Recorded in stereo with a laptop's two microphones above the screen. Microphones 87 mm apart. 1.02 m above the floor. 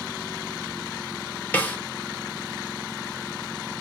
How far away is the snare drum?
About 0.9 m.